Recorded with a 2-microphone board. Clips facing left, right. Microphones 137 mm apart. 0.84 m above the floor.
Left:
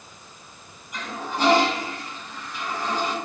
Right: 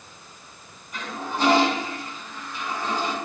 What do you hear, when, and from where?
0.9 s a toilet flushing: 15° left (ahead or behind), 4.5 m